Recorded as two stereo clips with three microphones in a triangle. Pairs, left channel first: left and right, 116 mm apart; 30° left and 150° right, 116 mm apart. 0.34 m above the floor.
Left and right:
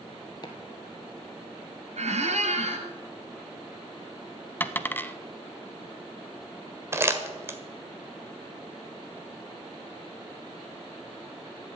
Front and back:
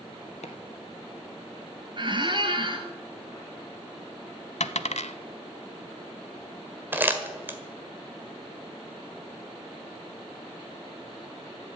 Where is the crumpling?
110° right, 1.6 m.